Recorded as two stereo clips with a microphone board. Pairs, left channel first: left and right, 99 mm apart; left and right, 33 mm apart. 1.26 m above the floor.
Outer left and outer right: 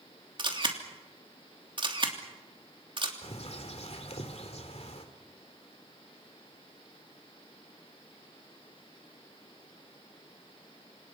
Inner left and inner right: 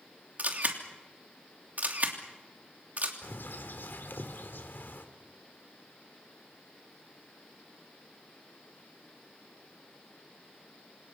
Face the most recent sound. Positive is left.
turn(degrees=80)